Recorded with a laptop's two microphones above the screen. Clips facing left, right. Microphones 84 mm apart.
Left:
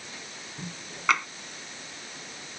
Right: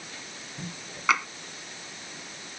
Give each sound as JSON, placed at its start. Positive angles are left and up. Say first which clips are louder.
{"t": 1.1, "sound": "tapping", "louder": "even", "side_deg": 0}